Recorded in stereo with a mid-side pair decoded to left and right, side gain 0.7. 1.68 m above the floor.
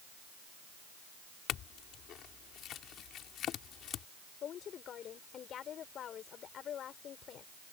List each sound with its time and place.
1.5 s a clink: 45° left
4.4 s a woman speaking: 40° left